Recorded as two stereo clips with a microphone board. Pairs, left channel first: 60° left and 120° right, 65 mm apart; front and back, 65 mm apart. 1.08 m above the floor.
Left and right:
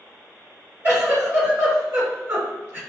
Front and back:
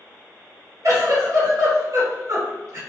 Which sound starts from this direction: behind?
A giggle, at 0.8 s.